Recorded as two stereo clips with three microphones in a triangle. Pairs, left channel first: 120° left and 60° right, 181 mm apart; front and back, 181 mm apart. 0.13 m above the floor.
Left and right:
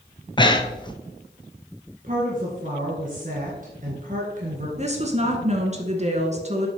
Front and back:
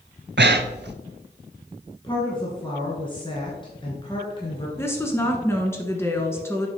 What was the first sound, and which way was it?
Breathing, straight behind.